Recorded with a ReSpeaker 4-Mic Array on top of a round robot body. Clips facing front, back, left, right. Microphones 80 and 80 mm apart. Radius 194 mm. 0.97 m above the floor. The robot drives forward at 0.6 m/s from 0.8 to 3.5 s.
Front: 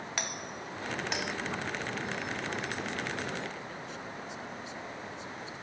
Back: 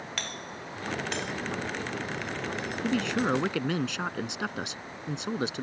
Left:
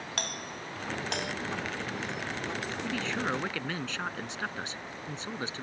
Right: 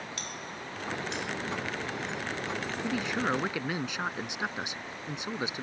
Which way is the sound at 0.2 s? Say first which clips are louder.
Even, left 2 dB; 75° left.